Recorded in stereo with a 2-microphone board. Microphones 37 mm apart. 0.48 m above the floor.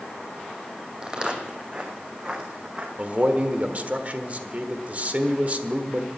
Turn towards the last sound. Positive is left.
turn(degrees=-40)  # may be behind; listen again after turning